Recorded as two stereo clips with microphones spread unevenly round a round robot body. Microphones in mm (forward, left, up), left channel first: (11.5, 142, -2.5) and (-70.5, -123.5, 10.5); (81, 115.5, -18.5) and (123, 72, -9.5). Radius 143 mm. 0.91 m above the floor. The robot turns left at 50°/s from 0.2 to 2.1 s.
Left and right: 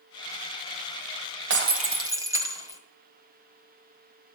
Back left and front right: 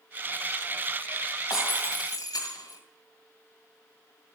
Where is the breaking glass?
155° right, 1.7 m; by 2.8 s 175° left, 1.7 m.